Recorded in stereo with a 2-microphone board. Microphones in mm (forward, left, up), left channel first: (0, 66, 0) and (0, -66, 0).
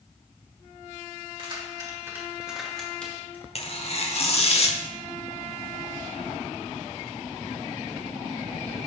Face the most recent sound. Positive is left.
turn(degrees=50)  # may be behind; listen again after turning